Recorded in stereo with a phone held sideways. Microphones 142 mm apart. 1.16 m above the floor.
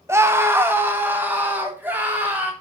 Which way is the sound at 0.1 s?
20° right (ahead or behind).